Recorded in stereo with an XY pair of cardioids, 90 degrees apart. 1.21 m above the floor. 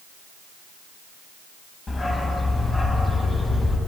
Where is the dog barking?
35° left, 2.5 m.